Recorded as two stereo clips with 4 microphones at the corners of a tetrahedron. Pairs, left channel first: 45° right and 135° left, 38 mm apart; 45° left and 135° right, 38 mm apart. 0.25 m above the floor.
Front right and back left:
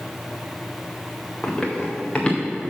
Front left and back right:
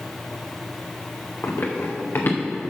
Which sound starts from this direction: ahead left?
Running footsteps, at 1.4 s.